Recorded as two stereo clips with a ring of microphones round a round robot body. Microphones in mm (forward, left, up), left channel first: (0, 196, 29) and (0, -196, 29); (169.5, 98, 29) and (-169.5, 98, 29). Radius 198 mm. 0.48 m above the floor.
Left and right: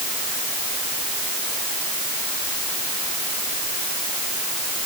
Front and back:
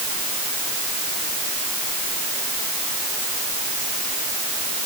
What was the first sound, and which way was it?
Only background noise.